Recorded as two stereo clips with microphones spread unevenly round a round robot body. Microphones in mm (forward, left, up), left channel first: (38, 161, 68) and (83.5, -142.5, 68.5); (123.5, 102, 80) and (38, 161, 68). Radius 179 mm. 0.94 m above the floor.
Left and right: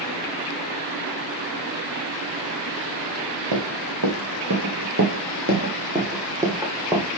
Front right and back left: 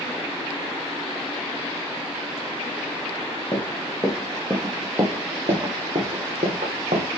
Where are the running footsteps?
105° right, 1.8 m; by 7.1 s 170° right, 2 m.